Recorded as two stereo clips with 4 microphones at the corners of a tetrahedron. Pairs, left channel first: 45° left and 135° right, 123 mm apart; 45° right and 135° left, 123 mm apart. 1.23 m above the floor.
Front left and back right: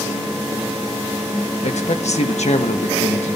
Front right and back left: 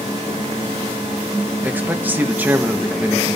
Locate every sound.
1.6 s a man speaking: 60° left, 1.4 m